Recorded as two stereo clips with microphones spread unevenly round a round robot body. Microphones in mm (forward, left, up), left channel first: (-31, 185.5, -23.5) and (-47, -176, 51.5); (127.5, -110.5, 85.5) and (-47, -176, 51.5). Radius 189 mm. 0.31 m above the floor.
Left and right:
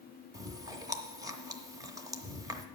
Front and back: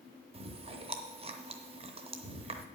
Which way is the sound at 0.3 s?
175° left.